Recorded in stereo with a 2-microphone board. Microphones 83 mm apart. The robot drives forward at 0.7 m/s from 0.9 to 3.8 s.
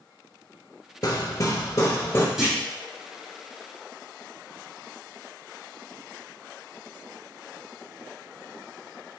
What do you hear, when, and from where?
1.0 s hammering: 45° left (ahead or behind), 0.7 m; by 2.2 s 30° left (ahead or behind), 1.1 m
2.4 s a clunk: 5° right (ahead or behind), 1.9 m